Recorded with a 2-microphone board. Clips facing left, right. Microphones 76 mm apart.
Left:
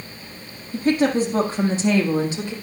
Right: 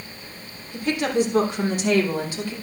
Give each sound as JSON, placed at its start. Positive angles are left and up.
{"t": 0.7, "sound": "a woman speaking", "side_deg": 40, "distance_m": 4.5}